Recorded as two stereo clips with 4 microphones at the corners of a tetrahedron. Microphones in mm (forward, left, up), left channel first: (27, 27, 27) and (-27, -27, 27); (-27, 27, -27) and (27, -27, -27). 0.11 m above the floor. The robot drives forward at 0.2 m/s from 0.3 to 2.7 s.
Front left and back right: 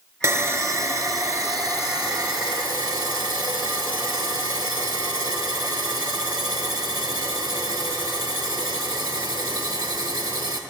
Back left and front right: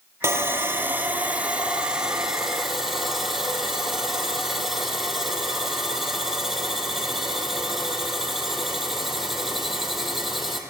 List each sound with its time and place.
0.2 s sawing: 90° right, 0.6 m; by 10.6 s 135° right, 0.8 m